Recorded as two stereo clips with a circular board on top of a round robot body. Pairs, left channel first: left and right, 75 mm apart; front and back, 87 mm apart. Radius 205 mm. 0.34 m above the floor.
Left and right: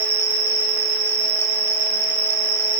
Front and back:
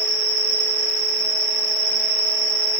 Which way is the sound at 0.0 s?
135° right.